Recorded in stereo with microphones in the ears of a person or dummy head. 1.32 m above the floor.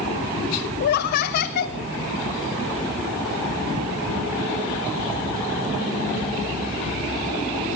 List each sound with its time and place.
0.8 s laughter: 55° left (ahead or behind), 0.6 m